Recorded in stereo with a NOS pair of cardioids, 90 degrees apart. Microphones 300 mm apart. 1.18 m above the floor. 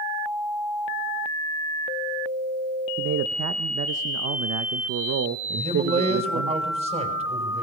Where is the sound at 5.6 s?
30° right, 5 m.